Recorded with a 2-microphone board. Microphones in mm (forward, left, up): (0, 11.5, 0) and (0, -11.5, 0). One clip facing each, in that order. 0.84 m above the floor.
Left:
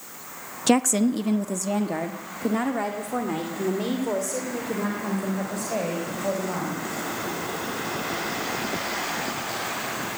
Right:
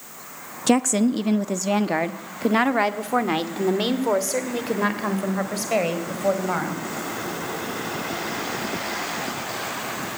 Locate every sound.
0.7 s a woman speaking: 5° left (ahead or behind), 0.7 m; by 6.8 s 70° right (ahead or behind), 4 m